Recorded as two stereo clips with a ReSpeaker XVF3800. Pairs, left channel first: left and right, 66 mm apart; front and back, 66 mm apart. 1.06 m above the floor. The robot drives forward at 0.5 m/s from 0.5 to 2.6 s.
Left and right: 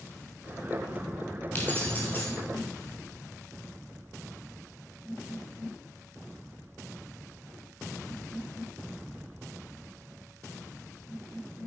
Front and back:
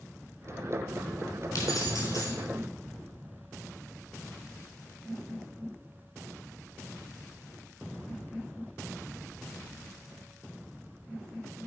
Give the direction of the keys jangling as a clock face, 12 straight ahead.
11 o'clock.